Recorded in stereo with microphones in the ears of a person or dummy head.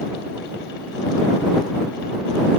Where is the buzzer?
I don't hear a buzzer.